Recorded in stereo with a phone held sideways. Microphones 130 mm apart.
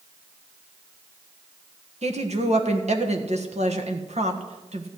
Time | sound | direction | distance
2.0 | a woman speaking | 60° right (ahead or behind) | 1.4 m